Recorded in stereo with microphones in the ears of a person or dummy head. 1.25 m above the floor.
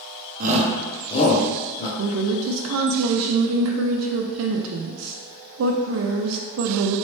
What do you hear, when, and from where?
0.4 s a shout: 45° right (ahead or behind), 0.7 m; by 1.9 s 55° left (ahead or behind), 1.3 m
2.0 s a woman speaking: 80° right, 0.6 m